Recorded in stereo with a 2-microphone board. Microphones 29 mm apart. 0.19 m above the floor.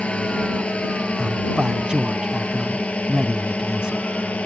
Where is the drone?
40° left (ahead or behind); by 4.5 s 50° left (ahead or behind).